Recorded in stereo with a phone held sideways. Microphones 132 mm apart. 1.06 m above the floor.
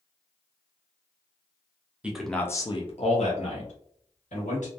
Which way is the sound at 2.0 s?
10° right (ahead or behind).